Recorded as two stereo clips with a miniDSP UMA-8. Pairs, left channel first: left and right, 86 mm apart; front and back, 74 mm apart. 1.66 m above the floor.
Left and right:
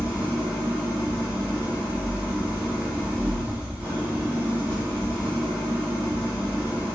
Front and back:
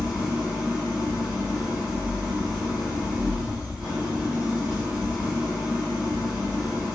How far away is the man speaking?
No man speaking in this recording.